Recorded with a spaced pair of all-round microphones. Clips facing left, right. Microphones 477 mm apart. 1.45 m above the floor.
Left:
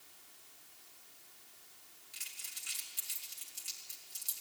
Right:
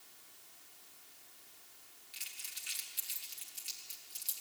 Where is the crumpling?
65° left (ahead or behind), 2.5 m.